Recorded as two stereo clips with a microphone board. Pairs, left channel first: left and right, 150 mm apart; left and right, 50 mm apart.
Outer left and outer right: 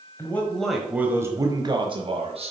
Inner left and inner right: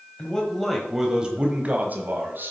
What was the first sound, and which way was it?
A man speaking, 15° left (ahead or behind).